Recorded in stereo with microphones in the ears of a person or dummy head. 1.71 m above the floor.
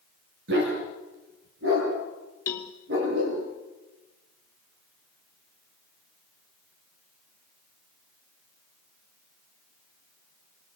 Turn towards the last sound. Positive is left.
turn(degrees=20)  # may be behind; listen again after turning